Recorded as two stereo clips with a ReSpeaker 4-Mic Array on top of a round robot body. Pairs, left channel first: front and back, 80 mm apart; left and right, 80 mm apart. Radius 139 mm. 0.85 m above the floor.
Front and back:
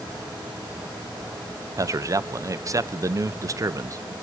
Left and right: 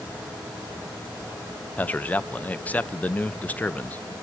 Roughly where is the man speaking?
Behind left.